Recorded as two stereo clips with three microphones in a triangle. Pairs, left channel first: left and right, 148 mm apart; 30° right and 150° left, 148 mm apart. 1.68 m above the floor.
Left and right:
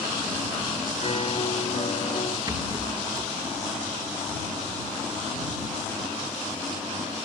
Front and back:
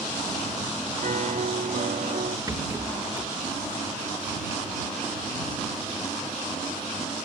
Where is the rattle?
150° right.